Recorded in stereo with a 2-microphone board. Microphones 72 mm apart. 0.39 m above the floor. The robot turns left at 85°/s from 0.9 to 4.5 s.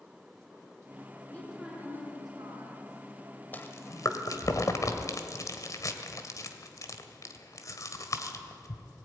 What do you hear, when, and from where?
1.3 s a woman speaking: 25° left, 5.5 m; by 2.9 s 110° right, 5.5 m
3.5 s chewing: 25° left (ahead or behind), 1.6 m; by 8.8 s 50° left (ahead or behind), 1.6 m